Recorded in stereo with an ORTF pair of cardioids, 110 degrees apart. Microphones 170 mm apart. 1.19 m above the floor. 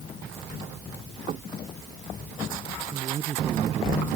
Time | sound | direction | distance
1.3 | knocking | 45° right | ?
2.9 | a man speaking | 35° right | ?